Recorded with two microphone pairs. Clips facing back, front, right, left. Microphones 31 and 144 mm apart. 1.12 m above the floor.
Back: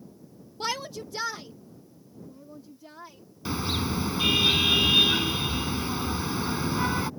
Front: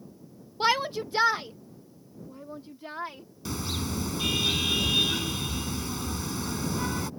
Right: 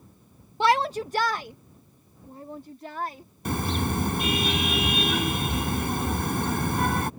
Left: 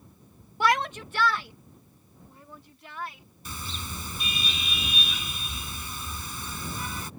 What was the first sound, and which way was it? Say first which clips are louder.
A shout: front 7 dB, right 3 dB; 40° right.